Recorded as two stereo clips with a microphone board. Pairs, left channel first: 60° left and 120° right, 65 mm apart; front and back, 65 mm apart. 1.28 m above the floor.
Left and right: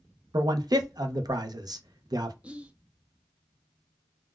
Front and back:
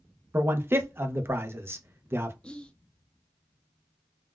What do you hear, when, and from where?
0.3 s a man speaking: 125° right, 0.6 m
2.4 s whispering: 60° right, 0.5 m